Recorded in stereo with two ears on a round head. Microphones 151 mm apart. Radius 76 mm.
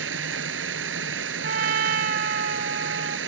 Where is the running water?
85° right.